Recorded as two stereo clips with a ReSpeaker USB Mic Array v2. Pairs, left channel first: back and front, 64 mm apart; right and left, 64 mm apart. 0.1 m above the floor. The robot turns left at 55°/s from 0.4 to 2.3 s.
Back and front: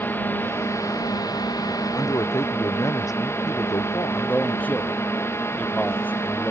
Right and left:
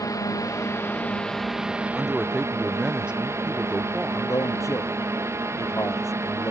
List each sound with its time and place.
0.0 s a drone: 120° right; by 6.5 s 135° left
1.9 s a man speaking: 175° right; by 4.3 s 165° left
4.1 s a man speaking: 115° right